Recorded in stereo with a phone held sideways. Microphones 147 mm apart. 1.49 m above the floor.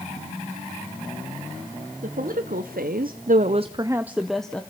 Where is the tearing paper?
No tearing paper in this recording.